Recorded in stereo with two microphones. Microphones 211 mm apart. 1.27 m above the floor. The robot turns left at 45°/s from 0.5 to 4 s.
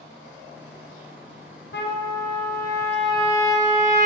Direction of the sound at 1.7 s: 60° left.